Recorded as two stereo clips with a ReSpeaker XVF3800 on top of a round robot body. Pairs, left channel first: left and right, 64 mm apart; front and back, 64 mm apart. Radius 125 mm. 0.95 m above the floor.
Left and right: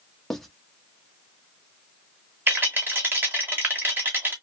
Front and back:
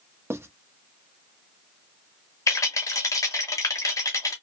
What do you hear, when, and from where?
0.3 s writing: 175° left, 0.8 m
2.5 s a rattle: 35° right, 0.6 m